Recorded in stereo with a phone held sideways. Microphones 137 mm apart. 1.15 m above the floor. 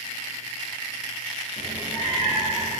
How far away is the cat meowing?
About 1.9 m.